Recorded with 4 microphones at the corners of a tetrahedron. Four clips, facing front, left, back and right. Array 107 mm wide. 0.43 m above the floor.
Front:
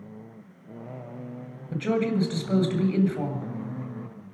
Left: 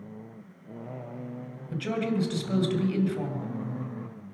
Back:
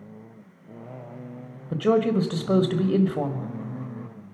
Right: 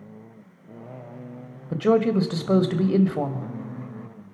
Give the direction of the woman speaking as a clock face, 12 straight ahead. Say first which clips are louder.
Right 9 dB, back 4 dB; 4 o'clock.